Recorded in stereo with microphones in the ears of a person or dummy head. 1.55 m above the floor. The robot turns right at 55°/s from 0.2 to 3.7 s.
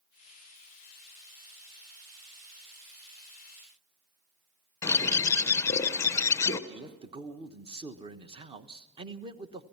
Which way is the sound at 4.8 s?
20° left (ahead or behind).